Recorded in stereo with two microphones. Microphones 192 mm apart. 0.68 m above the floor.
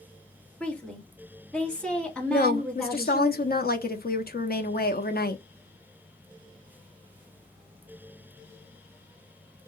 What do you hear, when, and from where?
0.6 s a woman speaking: 5° left (ahead or behind), 1.4 m
2.3 s a woman speaking: 55° left (ahead or behind), 0.8 m